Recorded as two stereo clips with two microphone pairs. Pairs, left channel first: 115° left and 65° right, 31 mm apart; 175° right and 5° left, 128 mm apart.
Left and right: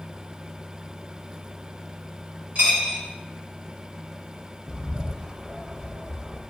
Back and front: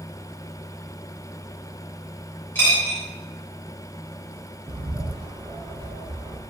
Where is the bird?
Straight ahead, 0.6 m.